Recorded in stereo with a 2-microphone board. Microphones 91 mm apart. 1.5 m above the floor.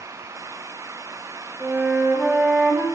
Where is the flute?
10° right (ahead or behind), 3.5 m.